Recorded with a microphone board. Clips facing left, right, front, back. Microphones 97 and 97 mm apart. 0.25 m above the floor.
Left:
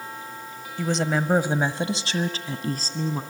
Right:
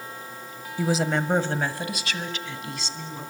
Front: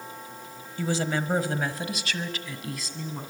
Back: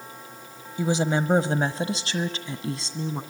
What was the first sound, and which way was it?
A woman speaking, 150° right.